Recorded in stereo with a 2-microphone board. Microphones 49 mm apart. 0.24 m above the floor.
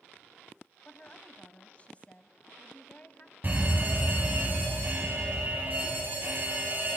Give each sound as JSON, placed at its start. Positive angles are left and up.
{"t": 0.8, "sound": "a woman speaking", "side_deg": 25, "distance_m": 1.2}
{"t": 3.4, "sound": "a fire alarm", "side_deg": -40, "distance_m": 3.0}